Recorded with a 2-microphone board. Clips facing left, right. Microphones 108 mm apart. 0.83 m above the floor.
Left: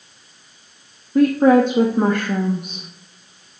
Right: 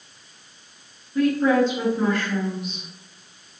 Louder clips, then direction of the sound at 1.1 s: Left 6 dB; 55° left (ahead or behind).